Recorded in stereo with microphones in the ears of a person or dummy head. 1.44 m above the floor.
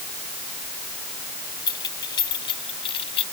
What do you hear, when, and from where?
1.7 s keys jangling: 20° left (ahead or behind); by 3.2 s 30° left (ahead or behind)